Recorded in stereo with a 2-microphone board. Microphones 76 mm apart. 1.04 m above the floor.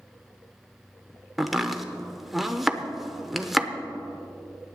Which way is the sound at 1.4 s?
Centre (ahead or behind).